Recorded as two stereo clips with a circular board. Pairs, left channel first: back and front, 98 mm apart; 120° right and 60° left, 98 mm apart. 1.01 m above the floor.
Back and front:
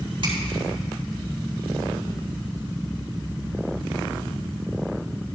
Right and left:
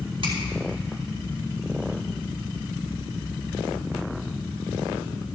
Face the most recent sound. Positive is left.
turn(degrees=35)